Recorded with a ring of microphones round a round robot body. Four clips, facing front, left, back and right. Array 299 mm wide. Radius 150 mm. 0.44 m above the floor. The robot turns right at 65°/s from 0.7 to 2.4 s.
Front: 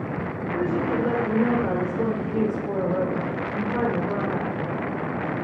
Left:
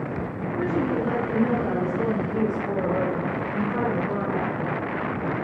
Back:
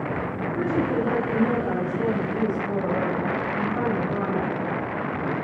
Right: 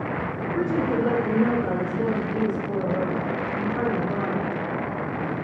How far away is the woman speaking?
About 1.3 m.